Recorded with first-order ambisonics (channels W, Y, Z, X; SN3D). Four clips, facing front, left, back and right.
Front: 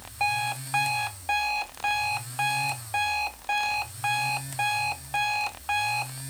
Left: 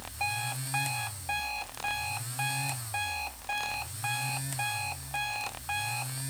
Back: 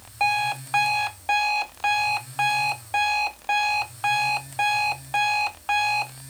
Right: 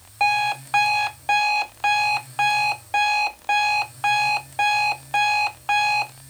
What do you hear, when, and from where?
0.2 s an alarm clock: 110° right